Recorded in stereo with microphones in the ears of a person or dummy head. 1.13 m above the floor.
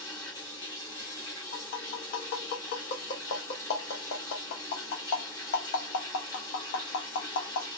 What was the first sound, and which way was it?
Running water, 15° left (ahead or behind).